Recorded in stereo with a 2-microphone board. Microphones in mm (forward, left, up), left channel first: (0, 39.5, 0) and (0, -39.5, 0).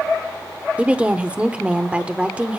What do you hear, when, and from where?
0.8 s a woman speaking: 15° right (ahead or behind), 0.8 m